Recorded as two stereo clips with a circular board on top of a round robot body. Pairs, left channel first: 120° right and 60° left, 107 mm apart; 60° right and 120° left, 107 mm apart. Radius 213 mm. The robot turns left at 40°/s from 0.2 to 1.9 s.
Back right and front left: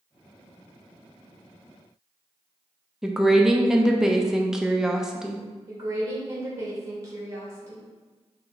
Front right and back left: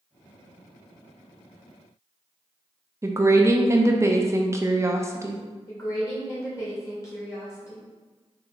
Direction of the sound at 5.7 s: Straight ahead.